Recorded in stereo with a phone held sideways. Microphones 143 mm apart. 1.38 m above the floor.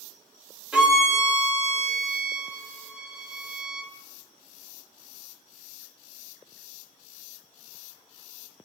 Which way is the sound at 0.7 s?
10° right (ahead or behind).